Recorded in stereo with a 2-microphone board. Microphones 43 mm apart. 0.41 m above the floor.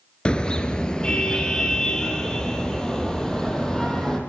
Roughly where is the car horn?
Left.